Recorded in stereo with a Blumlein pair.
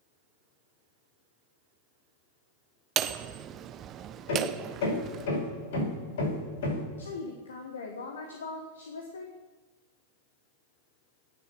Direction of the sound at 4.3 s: 60° left.